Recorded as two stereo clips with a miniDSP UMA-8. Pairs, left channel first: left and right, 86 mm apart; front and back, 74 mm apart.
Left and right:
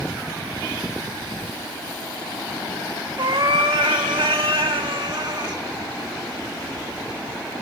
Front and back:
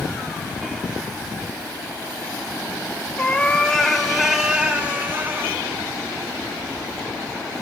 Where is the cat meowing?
70° right, 1.4 m; by 5.6 s 125° right, 1.5 m.